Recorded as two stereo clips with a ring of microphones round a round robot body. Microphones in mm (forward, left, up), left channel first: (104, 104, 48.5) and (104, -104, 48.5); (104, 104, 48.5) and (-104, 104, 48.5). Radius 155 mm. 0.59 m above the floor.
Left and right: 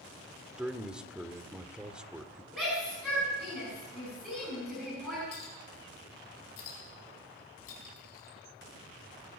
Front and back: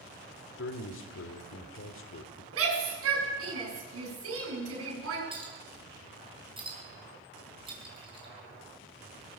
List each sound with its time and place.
0.6 s a man speaking: 5° right, 1.6 m
2.5 s a shout: straight behind, 7 m
5.3 s a clink: 115° left, 4.5 m